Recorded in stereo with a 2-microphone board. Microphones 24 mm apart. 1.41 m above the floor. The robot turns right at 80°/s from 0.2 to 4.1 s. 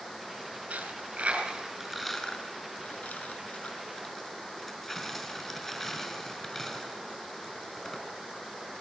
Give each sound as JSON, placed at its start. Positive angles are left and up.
{"t": 0.7, "sound": "a dropped coin", "side_deg": -80, "distance_m": 6.5}